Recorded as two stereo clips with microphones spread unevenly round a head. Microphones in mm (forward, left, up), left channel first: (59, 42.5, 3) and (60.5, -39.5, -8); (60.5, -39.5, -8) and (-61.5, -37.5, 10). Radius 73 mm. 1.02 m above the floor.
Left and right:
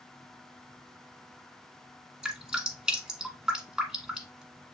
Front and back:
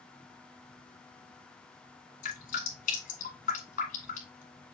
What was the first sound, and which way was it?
Dripping, 10° right.